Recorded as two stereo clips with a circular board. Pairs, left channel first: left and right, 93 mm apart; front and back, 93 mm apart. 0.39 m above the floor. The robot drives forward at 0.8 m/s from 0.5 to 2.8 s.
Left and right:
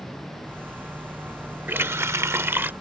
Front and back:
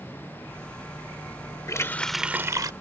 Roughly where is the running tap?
Ahead right.